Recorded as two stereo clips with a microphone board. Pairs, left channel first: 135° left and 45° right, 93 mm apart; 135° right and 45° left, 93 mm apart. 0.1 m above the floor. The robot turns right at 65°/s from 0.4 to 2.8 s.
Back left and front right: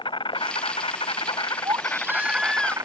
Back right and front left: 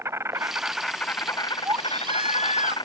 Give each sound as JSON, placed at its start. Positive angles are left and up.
{"t": 0.0, "sound": "an insect", "azimuth_deg": 110}
{"t": 1.6, "sound": "a baby crying", "azimuth_deg": -10}